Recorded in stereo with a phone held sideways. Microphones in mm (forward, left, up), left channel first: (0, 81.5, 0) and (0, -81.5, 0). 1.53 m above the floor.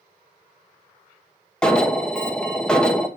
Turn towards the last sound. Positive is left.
turn(degrees=5)  # may be behind; listen again after turning